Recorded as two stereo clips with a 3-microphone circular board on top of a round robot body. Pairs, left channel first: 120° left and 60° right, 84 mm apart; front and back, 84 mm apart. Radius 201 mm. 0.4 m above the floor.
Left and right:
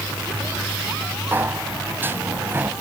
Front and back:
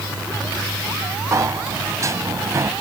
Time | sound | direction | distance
1.3 | a sliding door | 125° right | ?